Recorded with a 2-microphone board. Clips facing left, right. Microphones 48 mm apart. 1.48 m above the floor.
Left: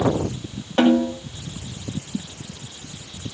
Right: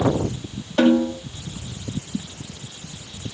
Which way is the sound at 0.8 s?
40° left (ahead or behind).